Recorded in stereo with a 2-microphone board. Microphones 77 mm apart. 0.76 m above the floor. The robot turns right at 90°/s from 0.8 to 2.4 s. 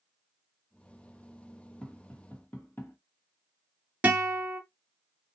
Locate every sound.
1.8 s tapping: 10° left (ahead or behind), 1.1 m; by 3.0 s 25° left (ahead or behind), 1.1 m
4.0 s a guitar: 20° right (ahead or behind), 0.9 m